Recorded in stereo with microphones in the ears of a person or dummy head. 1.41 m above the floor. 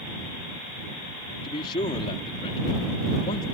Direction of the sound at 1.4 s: 25° left (ahead or behind).